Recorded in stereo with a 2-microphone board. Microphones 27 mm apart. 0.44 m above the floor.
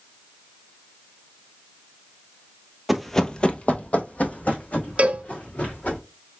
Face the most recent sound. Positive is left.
turn(degrees=-60)  # may be behind; listen again after turning